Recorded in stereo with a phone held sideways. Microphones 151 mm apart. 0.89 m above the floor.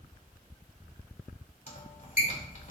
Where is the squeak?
65° left (ahead or behind), 2.5 m.